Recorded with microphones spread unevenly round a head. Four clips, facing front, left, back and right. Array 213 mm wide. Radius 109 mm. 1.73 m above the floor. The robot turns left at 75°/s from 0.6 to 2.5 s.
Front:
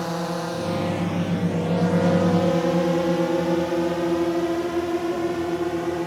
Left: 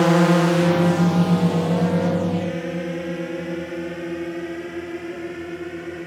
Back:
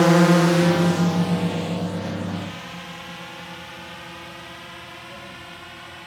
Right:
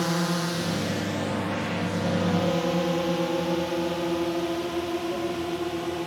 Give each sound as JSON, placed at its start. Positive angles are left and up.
{"t": 0.0, "sound": "a drone", "azimuth_deg": 150}